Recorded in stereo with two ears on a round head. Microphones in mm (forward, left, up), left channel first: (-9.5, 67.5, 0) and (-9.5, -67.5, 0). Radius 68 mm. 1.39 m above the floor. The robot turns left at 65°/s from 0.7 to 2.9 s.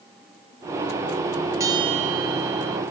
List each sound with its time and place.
1.6 s a bell: 20° right; by 2.8 s 100° right